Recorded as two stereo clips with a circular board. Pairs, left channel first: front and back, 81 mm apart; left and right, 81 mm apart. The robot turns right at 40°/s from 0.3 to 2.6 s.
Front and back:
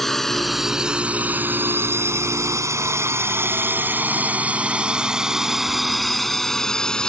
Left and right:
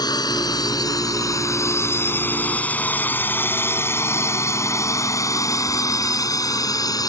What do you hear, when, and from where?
0.0 s a drone: 85° left; by 7.1 s 75° left